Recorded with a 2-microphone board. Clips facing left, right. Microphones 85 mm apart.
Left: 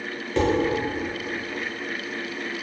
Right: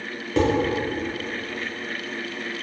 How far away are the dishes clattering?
About 0.7 m.